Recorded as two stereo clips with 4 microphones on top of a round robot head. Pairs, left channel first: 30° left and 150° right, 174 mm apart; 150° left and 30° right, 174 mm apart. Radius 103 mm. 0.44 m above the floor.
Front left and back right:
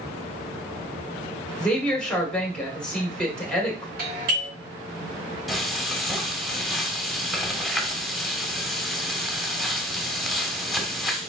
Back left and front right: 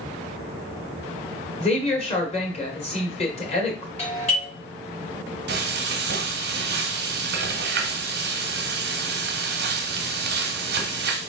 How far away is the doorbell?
About 3 m.